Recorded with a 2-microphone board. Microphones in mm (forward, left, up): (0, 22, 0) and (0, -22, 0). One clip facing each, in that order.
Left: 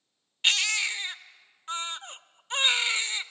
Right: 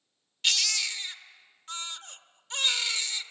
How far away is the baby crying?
About 0.6 m.